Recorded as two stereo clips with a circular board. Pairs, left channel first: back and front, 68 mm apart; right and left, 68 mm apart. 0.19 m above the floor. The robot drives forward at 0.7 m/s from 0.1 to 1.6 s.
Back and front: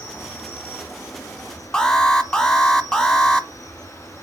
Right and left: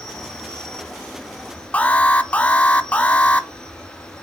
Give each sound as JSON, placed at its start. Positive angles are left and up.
{"t": 0.0, "sound": "an insect", "azimuth_deg": -150, "distance_m": 1.6}
{"t": 1.7, "sound": "an alarm", "azimuth_deg": -115, "distance_m": 0.7}